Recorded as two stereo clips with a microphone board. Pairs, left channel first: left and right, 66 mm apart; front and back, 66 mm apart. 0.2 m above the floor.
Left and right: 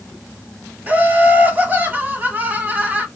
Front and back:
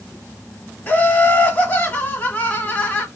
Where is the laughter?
45° right, 1.2 m.